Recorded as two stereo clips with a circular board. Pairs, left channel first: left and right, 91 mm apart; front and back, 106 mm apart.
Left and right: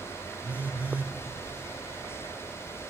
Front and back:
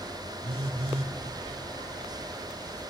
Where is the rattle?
I don't hear a rattle.